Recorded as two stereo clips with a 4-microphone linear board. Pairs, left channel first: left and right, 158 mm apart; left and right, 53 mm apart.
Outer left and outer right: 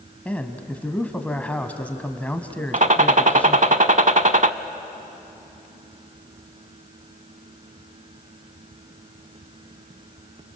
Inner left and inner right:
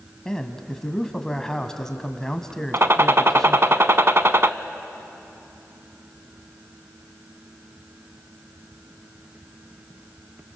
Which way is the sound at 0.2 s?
10° left (ahead or behind).